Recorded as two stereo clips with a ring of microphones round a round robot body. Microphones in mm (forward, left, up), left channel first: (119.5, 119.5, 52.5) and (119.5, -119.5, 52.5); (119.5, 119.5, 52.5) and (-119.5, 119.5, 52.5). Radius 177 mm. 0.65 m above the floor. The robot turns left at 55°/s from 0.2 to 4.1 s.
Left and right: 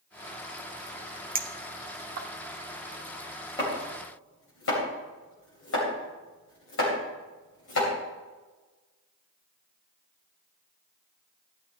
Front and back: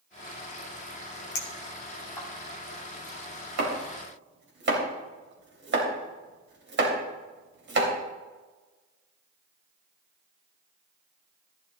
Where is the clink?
35° right, 1.1 m; by 2.3 s 85° right, 1.1 m.